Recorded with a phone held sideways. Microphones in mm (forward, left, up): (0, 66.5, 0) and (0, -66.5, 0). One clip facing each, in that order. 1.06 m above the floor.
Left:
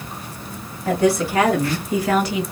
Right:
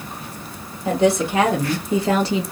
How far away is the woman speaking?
About 1.6 m.